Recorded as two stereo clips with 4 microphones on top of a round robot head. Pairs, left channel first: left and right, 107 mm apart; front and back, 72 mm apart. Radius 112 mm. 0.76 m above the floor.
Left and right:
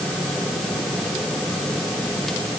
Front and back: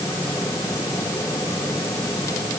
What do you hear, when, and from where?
Only background noise.